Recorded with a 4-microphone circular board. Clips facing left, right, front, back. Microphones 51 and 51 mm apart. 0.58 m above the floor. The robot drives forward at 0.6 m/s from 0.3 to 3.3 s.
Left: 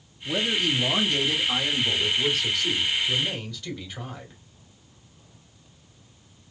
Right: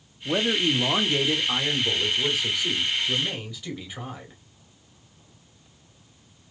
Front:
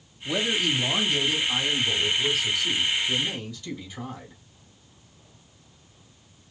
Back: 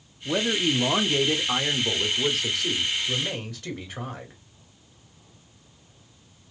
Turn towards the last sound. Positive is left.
turn(degrees=-170)